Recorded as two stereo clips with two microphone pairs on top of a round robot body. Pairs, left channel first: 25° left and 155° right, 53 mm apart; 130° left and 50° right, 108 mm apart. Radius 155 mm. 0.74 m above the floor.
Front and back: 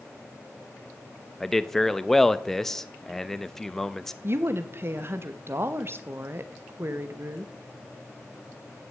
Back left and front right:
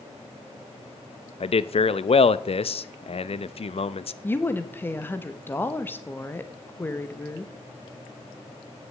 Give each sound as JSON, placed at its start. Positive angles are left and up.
{"t": 1.4, "sound": "a man speaking", "azimuth_deg": 110, "distance_m": 0.8}
{"t": 4.2, "sound": "a woman speaking", "azimuth_deg": -160, "distance_m": 1.4}